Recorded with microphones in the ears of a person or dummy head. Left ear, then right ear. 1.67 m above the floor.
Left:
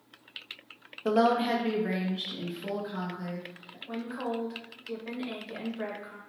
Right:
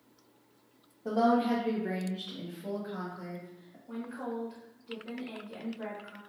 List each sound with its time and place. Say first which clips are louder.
1.1 s a woman speaking: left 3 dB; 45° left (ahead or behind), 0.7 m; by 3.8 s 20° right (ahead or behind), 1.4 m
3.9 s a woman speaking: left 4 dB; 45° left (ahead or behind), 1.1 m